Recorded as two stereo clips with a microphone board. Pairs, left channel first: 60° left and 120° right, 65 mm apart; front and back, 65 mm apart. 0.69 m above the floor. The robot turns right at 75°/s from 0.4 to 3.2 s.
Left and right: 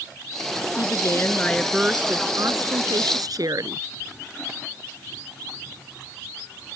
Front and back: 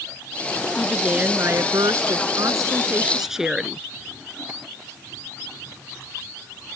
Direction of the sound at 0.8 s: 80° left.